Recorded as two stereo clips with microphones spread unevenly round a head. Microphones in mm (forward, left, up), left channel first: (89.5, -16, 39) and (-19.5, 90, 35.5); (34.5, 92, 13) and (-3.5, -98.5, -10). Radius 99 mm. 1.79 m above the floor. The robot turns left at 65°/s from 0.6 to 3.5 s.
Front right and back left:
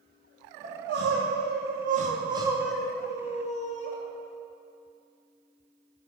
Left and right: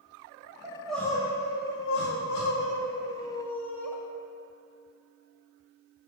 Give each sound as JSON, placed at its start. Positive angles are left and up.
{"t": 0.6, "sound": "crying", "azimuth_deg": -175, "distance_m": 0.5}